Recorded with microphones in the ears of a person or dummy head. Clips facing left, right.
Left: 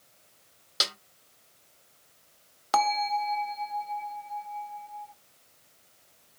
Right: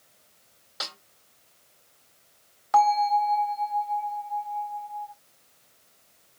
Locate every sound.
0.8 s a snare drum: 40° left (ahead or behind), 1.4 m
2.7 s a bell: 45° left (ahead or behind), 0.9 m